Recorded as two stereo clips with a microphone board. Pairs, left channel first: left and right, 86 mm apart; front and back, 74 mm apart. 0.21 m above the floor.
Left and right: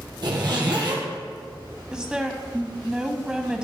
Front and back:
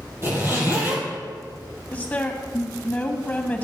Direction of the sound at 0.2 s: 125° right.